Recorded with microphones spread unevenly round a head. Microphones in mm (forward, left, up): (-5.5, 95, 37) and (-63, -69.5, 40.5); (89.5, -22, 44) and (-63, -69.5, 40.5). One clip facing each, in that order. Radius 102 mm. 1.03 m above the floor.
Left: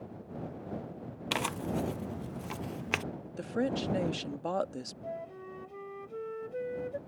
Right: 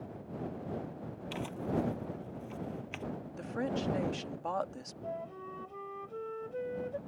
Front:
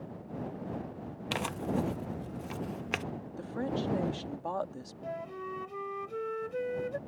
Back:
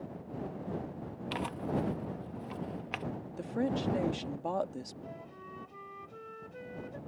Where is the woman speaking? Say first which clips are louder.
Left 4 dB, back 2 dB; 120° left.